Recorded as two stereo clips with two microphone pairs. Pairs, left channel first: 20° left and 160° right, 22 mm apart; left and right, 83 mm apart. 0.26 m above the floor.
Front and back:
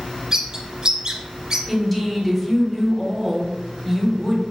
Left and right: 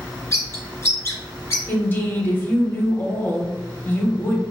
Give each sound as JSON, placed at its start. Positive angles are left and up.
{"t": 0.3, "sound": "a bird", "azimuth_deg": 145, "distance_m": 1.0}
{"t": 1.7, "sound": "a woman speaking", "azimuth_deg": 105, "distance_m": 1.0}